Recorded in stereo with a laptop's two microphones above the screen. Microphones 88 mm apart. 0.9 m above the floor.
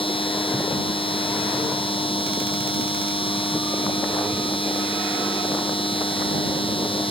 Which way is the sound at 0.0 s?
80° left.